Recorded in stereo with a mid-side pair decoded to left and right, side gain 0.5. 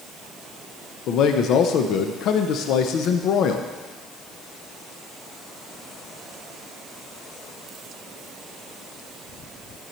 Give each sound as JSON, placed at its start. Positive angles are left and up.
{"t": 1.1, "sound": "a man speaking", "azimuth_deg": 70, "distance_m": 0.6}